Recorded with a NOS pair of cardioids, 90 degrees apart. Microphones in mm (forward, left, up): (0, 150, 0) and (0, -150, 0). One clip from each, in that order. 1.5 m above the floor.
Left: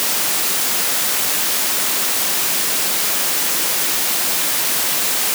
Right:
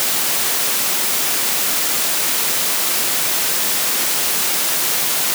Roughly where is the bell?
No bell in this recording.